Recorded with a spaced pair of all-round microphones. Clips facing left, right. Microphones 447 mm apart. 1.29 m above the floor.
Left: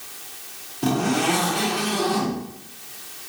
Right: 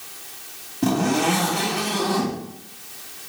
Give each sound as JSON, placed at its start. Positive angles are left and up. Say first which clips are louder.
{"t": 0.8, "sound": "a zipper", "louder": "right 1 dB", "side_deg": -65, "distance_m": 2.0}